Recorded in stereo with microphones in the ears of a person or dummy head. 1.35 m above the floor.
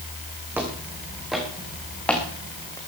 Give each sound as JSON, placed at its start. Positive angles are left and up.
{"t": 0.5, "sound": "footsteps", "side_deg": -10, "distance_m": 3.5}